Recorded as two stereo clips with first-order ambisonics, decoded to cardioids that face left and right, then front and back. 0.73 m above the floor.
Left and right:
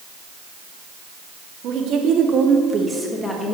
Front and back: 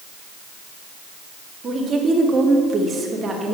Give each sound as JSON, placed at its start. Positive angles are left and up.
{"t": 1.6, "sound": "a woman speaking", "azimuth_deg": -120, "distance_m": 1.7}